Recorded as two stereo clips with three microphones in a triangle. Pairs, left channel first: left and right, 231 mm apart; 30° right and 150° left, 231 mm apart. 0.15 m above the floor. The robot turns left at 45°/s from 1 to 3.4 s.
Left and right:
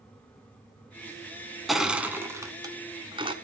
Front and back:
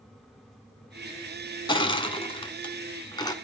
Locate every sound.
1.7 s crushing: straight ahead, 1.2 m; by 3.3 s 75° right, 1.2 m